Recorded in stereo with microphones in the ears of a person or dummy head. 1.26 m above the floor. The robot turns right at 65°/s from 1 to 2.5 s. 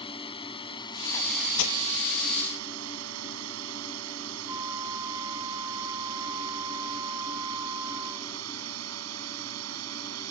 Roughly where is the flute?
Centre.